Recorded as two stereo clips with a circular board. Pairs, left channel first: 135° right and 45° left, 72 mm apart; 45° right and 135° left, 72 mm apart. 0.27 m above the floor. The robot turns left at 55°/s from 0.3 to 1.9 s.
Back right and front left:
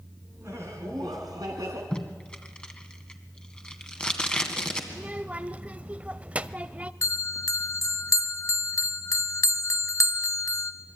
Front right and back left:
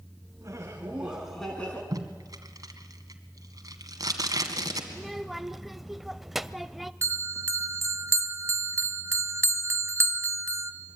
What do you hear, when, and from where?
0.4 s laughter: 95° left, 3 m; by 1.8 s 20° left, 3 m
1.9 s tape being pulled: 150° left, 2 m
4.9 s a child speaking: 55° left, 0.6 m
7.0 s a bell: 175° right, 0.9 m